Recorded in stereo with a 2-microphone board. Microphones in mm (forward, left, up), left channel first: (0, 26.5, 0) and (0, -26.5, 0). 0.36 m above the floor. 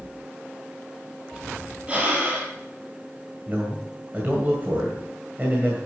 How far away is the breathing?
About 3 m.